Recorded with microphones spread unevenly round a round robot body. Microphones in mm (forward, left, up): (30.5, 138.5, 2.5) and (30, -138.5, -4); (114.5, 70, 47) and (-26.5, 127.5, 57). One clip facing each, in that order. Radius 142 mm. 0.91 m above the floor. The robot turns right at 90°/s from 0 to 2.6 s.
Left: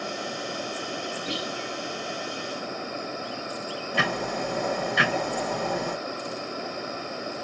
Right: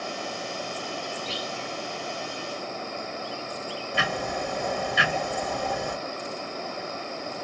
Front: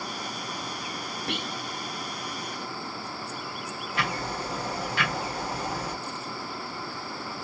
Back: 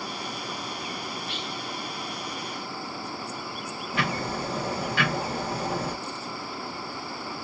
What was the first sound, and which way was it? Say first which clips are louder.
Whispering: left 3 dB, front 2 dB; 15° left.